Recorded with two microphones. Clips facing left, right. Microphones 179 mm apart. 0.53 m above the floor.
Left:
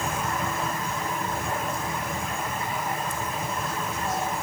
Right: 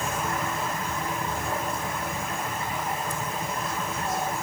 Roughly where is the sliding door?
I don't hear a sliding door.